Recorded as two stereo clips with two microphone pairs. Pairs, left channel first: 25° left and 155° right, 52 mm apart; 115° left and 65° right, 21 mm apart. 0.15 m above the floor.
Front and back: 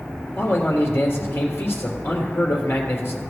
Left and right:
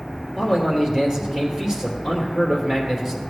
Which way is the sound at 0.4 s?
10° right.